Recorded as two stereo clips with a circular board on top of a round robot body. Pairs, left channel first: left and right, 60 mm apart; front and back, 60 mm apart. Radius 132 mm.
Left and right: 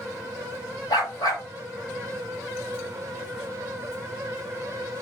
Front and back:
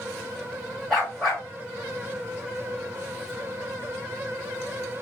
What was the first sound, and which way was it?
A dog barking, 80° left.